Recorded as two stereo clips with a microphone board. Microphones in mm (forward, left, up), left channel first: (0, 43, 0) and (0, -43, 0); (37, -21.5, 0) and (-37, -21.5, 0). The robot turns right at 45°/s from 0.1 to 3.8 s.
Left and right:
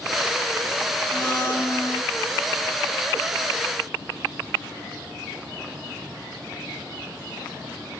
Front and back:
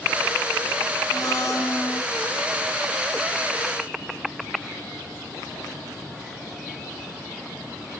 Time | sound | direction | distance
1.1 | a blender | 10° left | 1.3 m